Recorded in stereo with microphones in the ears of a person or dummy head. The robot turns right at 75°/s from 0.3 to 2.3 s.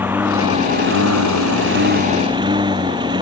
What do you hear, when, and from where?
0.0 s a lawn mower: 170° right; by 3.2 s 20° right